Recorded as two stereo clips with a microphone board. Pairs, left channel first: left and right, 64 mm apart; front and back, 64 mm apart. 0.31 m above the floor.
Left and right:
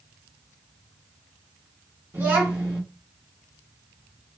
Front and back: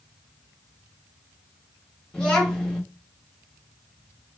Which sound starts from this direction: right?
A child speaking, at 2.1 s.